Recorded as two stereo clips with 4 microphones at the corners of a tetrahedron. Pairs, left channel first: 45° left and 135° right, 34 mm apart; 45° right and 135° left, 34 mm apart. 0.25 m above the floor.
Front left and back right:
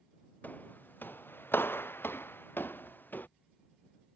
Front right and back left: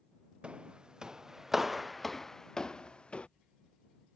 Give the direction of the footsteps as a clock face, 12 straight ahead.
9 o'clock.